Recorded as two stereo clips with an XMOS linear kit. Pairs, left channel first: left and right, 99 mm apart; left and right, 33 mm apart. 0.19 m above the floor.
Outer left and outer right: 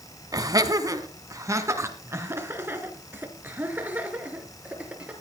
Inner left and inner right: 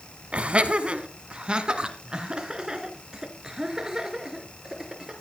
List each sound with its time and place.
0.3 s laughter: 40° right (ahead or behind), 1.6 m; by 5.1 s 15° right (ahead or behind), 4 m